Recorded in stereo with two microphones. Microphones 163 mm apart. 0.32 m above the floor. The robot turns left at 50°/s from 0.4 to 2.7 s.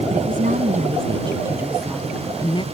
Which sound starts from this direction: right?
A woman speaking, at 0.1 s.